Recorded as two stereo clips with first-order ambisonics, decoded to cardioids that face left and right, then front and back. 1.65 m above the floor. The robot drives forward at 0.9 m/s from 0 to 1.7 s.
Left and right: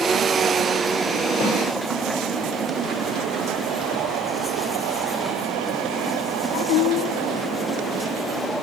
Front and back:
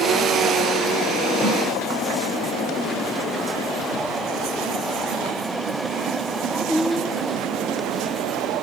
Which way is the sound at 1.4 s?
70° left.